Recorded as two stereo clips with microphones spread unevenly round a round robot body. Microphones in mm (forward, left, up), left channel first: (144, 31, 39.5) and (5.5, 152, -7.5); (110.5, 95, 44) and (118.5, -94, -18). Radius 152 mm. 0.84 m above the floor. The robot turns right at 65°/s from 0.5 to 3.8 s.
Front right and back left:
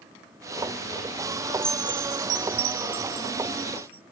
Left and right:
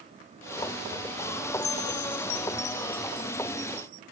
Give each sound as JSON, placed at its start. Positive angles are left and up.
{"t": 1.6, "sound": "a chime", "azimuth_deg": 75}